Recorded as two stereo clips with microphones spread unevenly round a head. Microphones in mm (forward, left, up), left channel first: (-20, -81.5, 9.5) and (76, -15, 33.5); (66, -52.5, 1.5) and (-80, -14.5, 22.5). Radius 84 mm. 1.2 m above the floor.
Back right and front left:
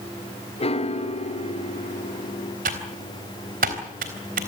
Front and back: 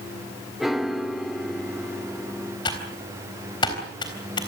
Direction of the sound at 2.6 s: 55° left.